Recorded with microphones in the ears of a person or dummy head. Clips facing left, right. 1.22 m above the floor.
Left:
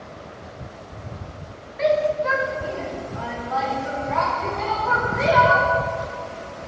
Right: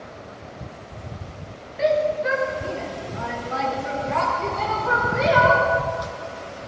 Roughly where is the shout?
Centre.